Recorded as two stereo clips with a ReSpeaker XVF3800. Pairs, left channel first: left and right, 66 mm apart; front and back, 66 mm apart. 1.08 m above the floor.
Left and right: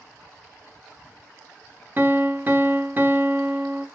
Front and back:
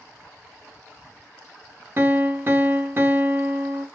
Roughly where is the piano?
Behind right.